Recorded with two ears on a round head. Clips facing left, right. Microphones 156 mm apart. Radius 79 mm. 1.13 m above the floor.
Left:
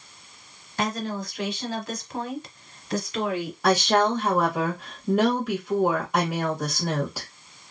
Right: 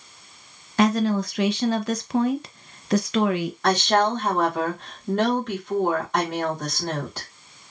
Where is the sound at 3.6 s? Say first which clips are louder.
Even; 10° left (ahead or behind), 1.5 m.